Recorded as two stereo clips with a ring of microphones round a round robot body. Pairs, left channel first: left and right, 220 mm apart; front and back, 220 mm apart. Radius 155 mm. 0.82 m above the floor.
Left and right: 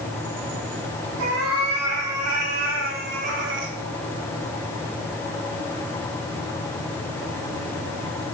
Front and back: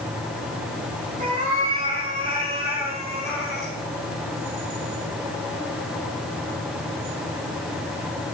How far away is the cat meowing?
About 3.5 m.